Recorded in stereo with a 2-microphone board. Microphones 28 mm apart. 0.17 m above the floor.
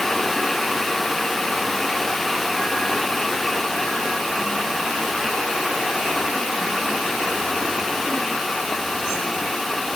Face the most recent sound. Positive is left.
No sound to turn to.